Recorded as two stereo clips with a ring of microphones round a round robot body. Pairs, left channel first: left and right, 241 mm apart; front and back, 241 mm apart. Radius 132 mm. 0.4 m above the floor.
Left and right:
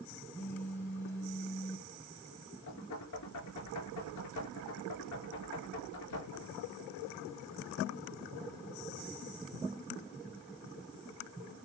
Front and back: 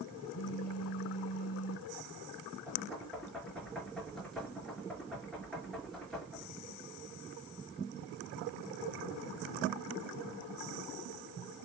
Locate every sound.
0.3 s a phone buzzing: 10° left, 2 m
2.7 s knocking: 90° left, 5.5 m